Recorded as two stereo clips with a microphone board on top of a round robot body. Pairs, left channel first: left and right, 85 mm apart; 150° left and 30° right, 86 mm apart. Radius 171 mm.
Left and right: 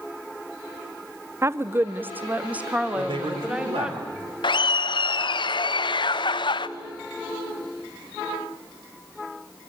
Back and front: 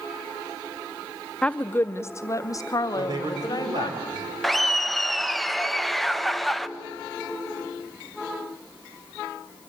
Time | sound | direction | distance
1.4 | a woman speaking | 135° right | 0.7 m
3.0 | a man speaking | 70° right | 4 m
4.4 | laughter | 60° left | 1.0 m